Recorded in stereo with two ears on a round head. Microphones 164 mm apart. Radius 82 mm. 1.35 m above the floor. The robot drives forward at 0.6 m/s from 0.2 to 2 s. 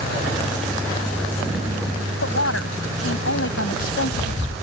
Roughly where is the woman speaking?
Left.